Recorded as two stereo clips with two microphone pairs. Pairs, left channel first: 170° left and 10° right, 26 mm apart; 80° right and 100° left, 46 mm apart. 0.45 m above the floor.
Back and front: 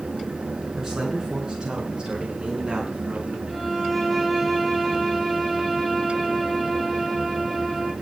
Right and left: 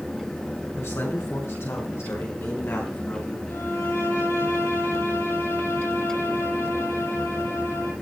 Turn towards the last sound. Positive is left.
turn(degrees=-105)